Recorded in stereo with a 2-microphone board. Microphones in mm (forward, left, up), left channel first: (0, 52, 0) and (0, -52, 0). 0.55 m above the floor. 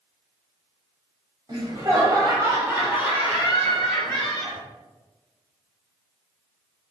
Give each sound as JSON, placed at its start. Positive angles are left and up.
{"t": 1.5, "sound": "laughter", "side_deg": -45, "distance_m": 1.7}